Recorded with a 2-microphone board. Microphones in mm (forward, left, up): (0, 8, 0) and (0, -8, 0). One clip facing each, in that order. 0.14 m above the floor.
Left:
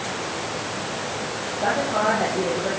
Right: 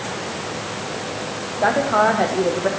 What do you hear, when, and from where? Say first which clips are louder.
1.6 s a woman speaking: right 5 dB; 65° right (ahead or behind), 7.5 m